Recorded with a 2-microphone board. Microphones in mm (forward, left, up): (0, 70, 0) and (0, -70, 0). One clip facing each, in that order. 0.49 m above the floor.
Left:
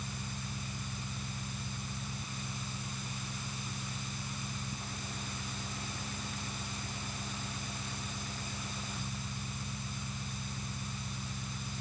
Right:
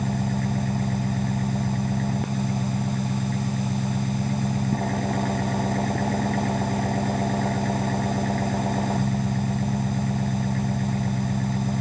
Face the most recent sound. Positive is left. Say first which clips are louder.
# right 18 dB
turn(degrees=-70)  # may be behind; listen again after turning